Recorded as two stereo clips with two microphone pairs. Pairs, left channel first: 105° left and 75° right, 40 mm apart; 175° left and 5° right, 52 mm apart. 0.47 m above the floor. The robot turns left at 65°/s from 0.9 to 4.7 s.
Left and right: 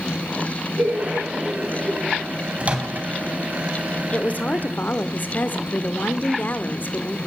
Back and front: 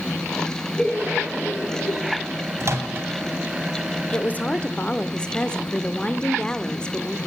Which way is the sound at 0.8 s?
110° right.